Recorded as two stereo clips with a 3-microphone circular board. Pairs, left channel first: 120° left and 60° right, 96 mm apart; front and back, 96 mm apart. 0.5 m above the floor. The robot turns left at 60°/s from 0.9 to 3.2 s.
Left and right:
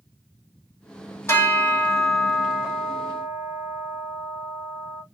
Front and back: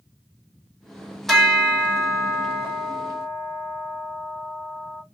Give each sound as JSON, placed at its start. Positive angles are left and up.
{"t": 1.3, "sound": "a bell", "azimuth_deg": 90, "distance_m": 1.5}